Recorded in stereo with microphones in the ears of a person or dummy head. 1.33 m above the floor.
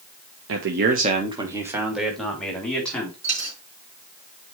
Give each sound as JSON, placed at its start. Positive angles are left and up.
{"t": 0.5, "sound": "a man speaking", "side_deg": -75, "distance_m": 1.1}
{"t": 3.2, "sound": "a dropped coin", "side_deg": -35, "distance_m": 4.0}